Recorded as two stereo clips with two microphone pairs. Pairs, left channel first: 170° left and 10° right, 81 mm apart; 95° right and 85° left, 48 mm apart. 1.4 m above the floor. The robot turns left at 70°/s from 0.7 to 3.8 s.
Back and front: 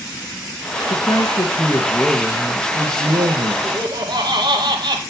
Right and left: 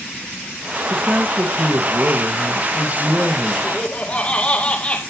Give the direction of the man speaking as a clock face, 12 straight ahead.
6 o'clock.